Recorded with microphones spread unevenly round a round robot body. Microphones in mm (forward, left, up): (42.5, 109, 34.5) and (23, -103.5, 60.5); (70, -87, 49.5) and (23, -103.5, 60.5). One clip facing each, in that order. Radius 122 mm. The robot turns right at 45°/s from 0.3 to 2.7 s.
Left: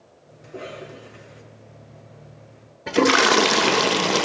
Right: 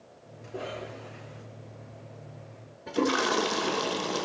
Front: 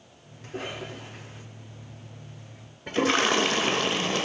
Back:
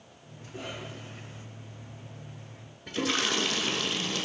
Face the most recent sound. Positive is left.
turn(degrees=80)